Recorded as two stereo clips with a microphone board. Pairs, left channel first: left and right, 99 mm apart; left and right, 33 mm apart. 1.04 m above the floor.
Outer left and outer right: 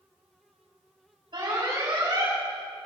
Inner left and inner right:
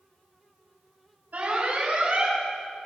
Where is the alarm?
55° right (ahead or behind), 6 m.